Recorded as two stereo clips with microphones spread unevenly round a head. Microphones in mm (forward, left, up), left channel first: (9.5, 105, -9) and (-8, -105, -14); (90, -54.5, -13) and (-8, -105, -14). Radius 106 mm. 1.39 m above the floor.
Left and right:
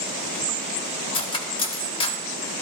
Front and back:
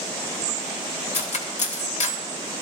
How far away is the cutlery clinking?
About 2.0 m.